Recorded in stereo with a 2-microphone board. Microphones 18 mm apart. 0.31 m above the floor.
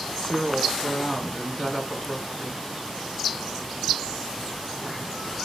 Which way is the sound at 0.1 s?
30° left (ahead or behind).